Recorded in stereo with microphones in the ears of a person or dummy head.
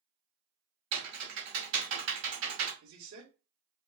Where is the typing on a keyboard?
65° right (ahead or behind), 1.7 m.